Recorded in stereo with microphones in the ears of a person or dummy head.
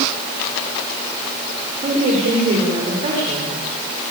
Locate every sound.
1.8 s a woman speaking: 30° right (ahead or behind), 7 m